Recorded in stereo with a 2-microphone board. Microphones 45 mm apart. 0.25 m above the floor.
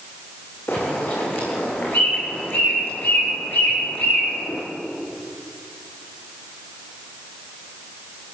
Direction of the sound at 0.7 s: 55° left (ahead or behind).